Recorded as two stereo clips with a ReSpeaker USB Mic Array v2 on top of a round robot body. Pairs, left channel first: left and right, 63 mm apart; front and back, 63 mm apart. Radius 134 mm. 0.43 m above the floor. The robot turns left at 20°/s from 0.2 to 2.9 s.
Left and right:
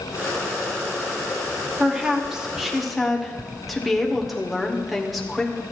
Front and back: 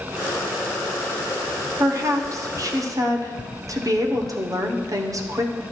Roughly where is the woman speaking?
Behind right.